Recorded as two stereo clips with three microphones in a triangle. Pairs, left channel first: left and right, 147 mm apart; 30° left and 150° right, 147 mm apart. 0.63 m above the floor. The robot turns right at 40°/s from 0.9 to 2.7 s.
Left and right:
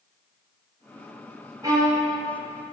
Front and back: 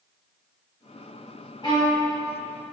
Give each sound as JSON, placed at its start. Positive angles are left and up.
{"t": 1.6, "sound": "a violin", "azimuth_deg": -25, "distance_m": 2.0}